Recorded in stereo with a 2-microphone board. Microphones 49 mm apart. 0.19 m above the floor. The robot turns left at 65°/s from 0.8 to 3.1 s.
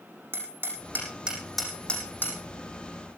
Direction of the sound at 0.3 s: 50° right (ahead or behind).